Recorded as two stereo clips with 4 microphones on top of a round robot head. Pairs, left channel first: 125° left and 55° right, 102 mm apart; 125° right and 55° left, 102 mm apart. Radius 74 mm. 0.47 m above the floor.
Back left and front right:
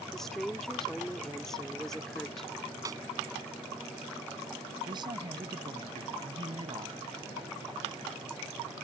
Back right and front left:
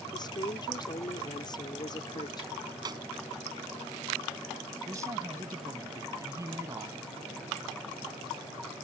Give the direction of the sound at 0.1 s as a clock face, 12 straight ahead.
5 o'clock.